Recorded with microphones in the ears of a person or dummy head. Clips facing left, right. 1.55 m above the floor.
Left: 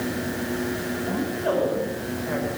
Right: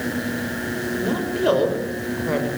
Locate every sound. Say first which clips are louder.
1.0 s a woman speaking: right 6 dB; 50° right (ahead or behind), 6 m